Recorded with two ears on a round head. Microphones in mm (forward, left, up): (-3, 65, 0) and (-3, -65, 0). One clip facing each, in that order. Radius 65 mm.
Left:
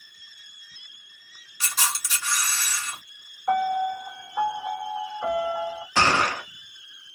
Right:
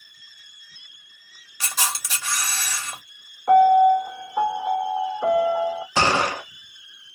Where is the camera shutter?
55° right (ahead or behind), 0.9 m.